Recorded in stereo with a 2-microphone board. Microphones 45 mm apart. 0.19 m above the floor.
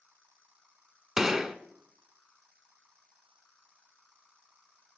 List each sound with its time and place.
1.2 s a gunshot: 15° right (ahead or behind), 0.6 m